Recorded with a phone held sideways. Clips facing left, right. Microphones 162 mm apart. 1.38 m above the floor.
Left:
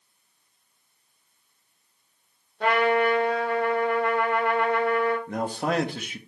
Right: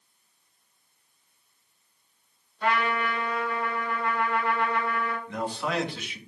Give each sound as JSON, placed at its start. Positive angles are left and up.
{"t": 2.6, "sound": "a trumpet", "side_deg": 75, "distance_m": 4.0}
{"t": 5.3, "sound": "a man speaking", "side_deg": 45, "distance_m": 1.6}